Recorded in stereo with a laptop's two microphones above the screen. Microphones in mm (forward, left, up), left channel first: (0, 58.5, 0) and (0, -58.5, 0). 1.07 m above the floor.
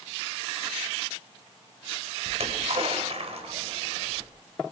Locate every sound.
2.3 s a splash: 65° right (ahead or behind), 4 m